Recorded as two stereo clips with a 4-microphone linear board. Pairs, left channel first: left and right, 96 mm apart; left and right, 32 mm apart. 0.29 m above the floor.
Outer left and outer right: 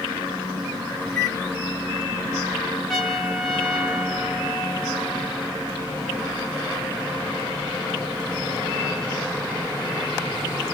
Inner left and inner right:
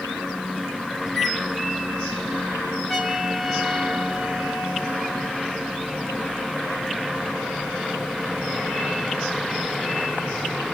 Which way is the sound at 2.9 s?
Centre (ahead or behind).